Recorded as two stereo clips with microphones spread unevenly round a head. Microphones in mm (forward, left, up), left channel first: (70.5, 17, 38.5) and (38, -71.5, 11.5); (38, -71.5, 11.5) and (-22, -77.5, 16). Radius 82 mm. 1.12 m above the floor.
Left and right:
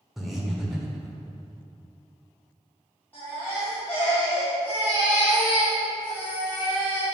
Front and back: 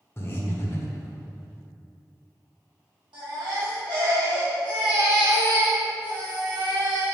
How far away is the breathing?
About 1.1 m.